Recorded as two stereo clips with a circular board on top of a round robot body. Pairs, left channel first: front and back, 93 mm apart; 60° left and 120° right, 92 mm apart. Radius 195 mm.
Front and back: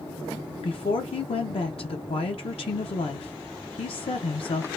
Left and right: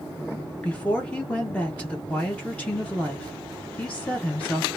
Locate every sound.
0.6 s a woman speaking: 20° right, 0.7 m